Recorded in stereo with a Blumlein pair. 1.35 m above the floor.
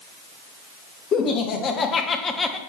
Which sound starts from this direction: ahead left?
Laughter, at 1.1 s.